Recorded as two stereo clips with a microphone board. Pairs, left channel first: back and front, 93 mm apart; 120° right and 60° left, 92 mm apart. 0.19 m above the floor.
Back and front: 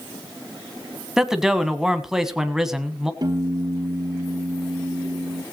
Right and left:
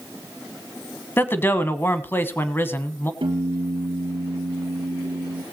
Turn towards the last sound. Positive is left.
turn(degrees=40)